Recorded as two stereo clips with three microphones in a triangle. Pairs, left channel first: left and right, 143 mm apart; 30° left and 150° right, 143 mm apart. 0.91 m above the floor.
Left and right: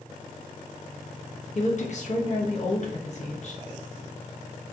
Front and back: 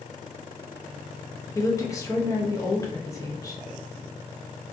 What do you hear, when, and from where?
1.6 s a woman speaking: 90° left, 0.9 m